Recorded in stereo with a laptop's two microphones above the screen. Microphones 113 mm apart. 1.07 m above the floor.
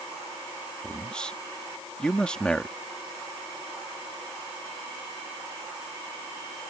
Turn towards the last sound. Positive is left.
turn(degrees=10)  # may be behind; listen again after turning